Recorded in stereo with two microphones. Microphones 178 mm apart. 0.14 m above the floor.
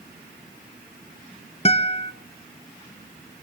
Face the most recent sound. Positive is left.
turn(degrees=35)  # may be behind; listen again after turning